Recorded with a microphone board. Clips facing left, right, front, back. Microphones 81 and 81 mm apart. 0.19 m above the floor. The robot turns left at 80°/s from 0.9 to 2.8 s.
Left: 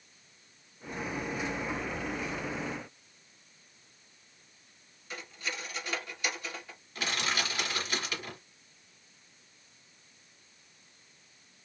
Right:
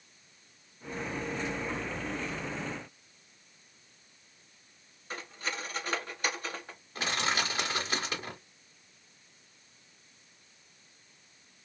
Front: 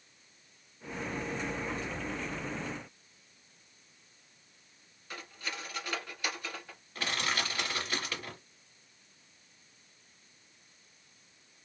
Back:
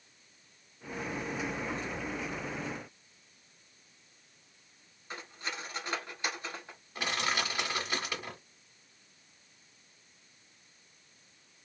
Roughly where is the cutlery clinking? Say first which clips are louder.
Right 2 dB, back 1 dB; behind right.